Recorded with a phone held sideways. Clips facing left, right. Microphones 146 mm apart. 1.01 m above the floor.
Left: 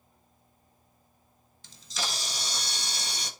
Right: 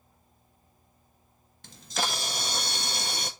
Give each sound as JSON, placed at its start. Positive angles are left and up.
{"t": 1.6, "sound": "a camera shutter", "side_deg": -55, "distance_m": 1.2}